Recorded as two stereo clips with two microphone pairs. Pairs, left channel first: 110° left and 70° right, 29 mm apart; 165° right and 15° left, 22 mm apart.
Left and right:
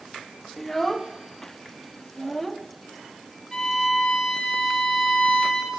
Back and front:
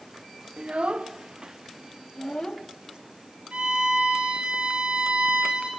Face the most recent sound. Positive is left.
turn(degrees=30)